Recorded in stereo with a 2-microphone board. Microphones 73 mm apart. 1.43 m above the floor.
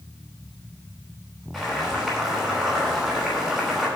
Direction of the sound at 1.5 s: 5° right (ahead or behind).